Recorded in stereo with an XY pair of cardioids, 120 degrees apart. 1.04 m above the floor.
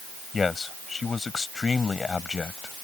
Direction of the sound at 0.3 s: 25° left.